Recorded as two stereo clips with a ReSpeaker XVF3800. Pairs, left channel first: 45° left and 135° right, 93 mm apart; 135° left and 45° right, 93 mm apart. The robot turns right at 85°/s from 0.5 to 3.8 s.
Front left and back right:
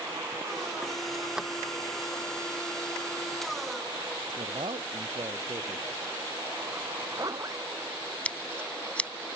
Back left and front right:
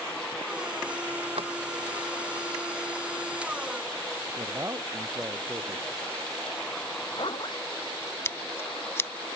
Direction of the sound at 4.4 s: 105° right.